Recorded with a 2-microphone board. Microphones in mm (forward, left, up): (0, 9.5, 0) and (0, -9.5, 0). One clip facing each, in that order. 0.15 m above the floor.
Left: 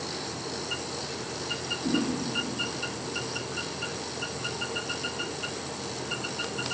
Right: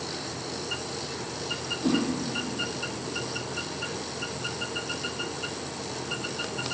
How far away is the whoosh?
About 6 m.